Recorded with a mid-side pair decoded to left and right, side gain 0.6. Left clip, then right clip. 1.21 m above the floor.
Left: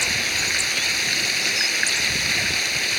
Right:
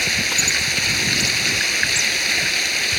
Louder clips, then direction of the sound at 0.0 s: Right 3 dB; 15° right.